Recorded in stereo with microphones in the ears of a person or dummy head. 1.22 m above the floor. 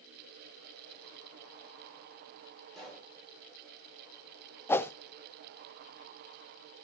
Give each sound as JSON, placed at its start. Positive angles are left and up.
{"t": 2.8, "sound": "a pop", "side_deg": 0, "distance_m": 7.5}
{"t": 4.7, "sound": "a whoosh", "side_deg": 15, "distance_m": 0.5}